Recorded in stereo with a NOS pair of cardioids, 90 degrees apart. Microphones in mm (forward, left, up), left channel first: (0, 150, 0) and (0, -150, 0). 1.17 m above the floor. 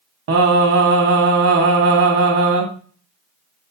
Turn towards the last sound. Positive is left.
turn(degrees=-50)